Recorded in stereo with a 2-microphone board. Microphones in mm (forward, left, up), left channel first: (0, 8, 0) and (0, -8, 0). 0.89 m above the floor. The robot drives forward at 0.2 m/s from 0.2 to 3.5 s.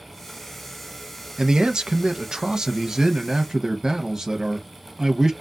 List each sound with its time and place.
1.4 s a man speaking: 45° right (ahead or behind), 0.5 m; by 5.3 s 35° right (ahead or behind), 0.6 m